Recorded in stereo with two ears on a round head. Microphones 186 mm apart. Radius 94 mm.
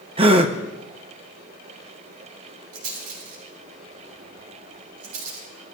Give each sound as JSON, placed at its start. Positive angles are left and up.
{"t": 0.2, "sound": "a gasp", "side_deg": -25, "distance_m": 0.9}
{"t": 2.7, "sound": "a rattle", "side_deg": -90, "distance_m": 6.0}